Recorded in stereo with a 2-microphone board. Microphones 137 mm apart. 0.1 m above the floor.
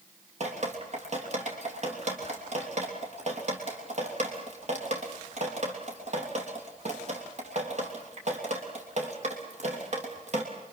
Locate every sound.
0.4 s dripping: 55° right (ahead or behind), 3 m